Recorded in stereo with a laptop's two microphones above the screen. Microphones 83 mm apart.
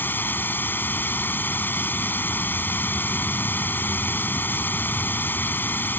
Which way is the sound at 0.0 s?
25° left (ahead or behind).